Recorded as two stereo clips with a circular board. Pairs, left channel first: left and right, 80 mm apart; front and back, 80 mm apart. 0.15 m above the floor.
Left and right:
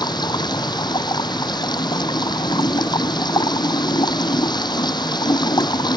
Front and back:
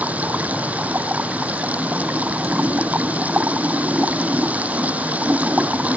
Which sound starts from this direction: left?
Running water, at 0.0 s.